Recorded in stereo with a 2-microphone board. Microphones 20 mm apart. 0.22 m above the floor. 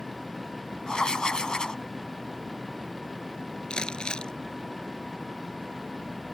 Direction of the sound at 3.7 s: 50° left (ahead or behind).